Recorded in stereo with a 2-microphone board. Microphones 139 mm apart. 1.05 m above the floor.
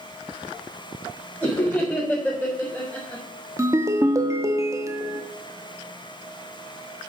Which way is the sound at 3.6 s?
20° right (ahead or behind).